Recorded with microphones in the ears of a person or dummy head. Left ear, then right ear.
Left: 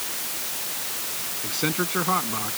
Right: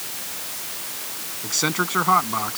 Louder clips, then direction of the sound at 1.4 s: Right 4 dB; 45° right (ahead or behind).